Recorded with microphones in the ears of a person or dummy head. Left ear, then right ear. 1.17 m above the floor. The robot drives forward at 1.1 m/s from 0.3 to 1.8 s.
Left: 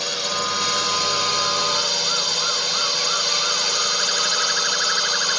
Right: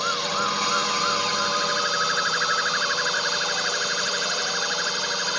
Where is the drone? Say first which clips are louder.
Left 1 dB; 15° left (ahead or behind).